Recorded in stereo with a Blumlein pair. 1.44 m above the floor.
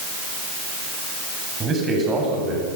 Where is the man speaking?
20° right, 8.5 m.